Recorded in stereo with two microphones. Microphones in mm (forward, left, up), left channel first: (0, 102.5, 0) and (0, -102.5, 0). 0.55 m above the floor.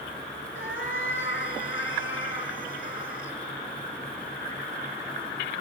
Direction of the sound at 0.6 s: 70° left (ahead or behind).